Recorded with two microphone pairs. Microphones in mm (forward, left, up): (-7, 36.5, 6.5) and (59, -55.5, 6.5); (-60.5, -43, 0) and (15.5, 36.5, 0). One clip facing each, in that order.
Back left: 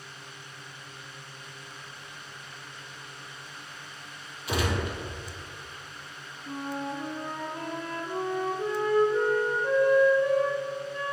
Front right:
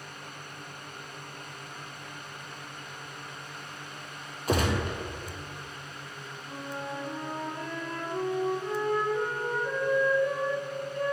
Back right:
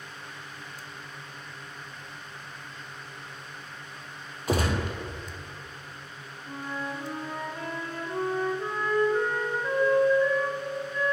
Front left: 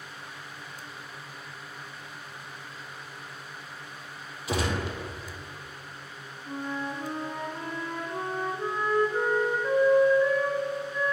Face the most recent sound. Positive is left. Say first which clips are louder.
# back left 4 dB, front left 2 dB
turn(degrees=125)